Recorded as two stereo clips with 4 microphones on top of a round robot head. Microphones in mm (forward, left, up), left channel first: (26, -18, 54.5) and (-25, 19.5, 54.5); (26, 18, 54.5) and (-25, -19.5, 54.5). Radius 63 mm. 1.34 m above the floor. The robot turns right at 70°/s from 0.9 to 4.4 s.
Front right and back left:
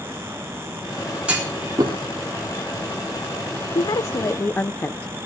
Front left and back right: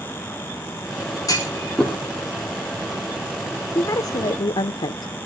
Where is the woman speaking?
20° right, 0.5 m; by 5.1 s 25° left, 0.5 m.